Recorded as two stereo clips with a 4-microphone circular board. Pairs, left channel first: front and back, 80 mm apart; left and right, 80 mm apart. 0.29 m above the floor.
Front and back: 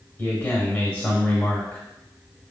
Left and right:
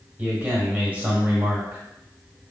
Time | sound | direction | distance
0.2 | a man speaking | 50° right | 1.3 m